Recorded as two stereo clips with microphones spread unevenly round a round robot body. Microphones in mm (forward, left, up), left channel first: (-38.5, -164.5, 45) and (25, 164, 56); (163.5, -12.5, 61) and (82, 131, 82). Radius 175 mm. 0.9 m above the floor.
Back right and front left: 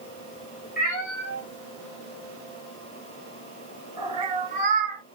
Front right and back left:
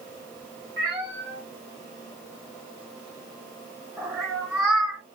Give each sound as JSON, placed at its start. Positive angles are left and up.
{"t": 0.8, "sound": "a cat meowing", "azimuth_deg": -165, "distance_m": 1.9}